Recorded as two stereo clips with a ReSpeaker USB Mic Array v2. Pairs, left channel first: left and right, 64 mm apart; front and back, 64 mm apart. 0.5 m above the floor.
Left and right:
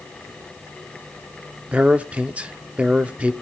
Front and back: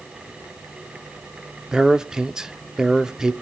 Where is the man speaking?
115° right, 0.7 m.